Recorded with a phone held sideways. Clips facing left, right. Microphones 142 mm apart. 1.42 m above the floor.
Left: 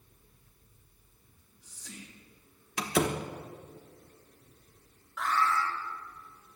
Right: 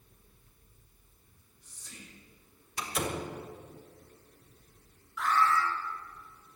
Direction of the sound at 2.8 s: 70° left (ahead or behind).